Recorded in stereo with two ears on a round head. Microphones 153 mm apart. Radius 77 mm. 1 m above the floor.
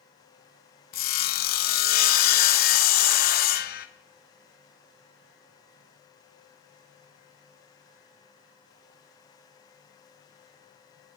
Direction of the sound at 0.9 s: 55° left (ahead or behind).